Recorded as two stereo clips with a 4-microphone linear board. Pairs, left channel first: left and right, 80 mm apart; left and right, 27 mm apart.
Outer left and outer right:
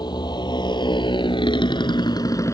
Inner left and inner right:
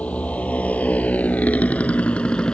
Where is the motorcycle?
65° left (ahead or behind); by 2.5 s 35° left (ahead or behind).